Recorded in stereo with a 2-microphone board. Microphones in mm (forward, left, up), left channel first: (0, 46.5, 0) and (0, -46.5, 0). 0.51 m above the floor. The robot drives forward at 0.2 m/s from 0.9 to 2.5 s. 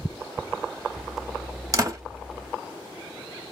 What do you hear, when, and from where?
1.7 s a door slam: 40° right (ahead or behind), 1.2 m; by 2.0 s 35° right (ahead or behind), 1.2 m